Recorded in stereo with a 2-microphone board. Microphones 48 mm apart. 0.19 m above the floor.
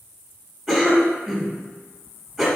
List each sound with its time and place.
0.7 s a cough: centre (ahead or behind), 1.2 m